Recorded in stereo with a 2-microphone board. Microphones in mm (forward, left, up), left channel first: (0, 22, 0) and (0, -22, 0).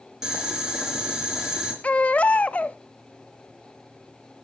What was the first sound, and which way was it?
Boiling, 20° right (ahead or behind).